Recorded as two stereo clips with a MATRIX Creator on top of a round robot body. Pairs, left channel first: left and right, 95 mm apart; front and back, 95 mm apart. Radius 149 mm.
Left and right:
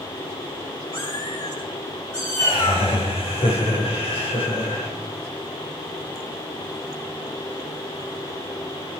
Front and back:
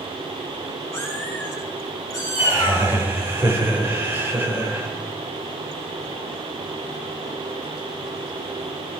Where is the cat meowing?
60° left, 9.5 m; by 2.9 s 45° left, 8.5 m.